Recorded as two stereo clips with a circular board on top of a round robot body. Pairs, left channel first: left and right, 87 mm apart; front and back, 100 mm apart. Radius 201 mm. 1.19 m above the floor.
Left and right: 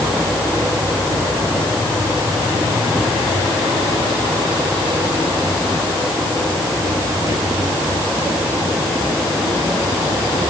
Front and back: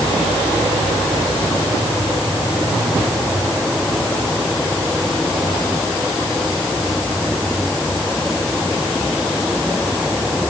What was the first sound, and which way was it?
Only background noise.